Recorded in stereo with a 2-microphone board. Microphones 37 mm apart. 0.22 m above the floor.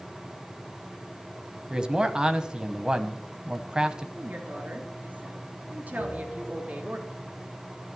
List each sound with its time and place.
1.7 s a man speaking: 25° right (ahead or behind), 1.0 m
4.2 s a woman speaking: 50° right (ahead or behind), 3 m
6.0 s a bell: 35° right (ahead or behind), 4.5 m